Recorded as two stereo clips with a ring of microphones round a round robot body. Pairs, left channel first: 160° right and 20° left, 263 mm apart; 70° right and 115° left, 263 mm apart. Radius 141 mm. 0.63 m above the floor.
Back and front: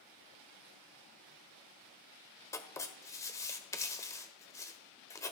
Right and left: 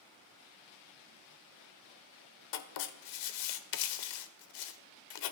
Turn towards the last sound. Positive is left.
turn(degrees=-80)